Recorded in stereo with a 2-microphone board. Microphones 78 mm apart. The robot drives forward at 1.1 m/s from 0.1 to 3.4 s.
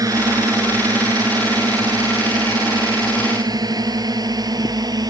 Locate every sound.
0.0 s a drone: 50° right (ahead or behind); by 5.1 s 55° right (ahead or behind)